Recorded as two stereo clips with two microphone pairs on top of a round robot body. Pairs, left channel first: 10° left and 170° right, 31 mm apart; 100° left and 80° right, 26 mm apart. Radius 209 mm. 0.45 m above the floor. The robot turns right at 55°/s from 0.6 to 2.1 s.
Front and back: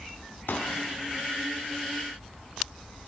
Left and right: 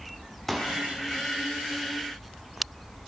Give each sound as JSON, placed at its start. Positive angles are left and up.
{"t": 0.5, "sound": "a pop", "azimuth_deg": 10, "distance_m": 1.4}